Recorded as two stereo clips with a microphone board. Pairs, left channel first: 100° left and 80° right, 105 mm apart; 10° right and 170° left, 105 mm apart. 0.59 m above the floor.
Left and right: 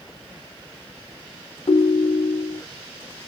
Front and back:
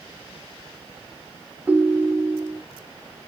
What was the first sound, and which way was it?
A ringtone, 100° left.